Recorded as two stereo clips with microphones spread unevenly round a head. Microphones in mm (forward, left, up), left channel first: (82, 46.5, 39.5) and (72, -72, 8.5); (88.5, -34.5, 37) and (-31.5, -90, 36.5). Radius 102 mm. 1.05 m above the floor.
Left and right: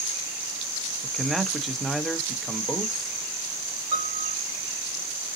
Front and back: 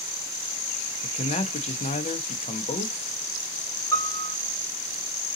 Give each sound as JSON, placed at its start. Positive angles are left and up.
{"t": 1.0, "sound": "a man speaking", "azimuth_deg": -10, "distance_m": 0.9}
{"t": 3.9, "sound": "a piano", "azimuth_deg": -45, "distance_m": 2.5}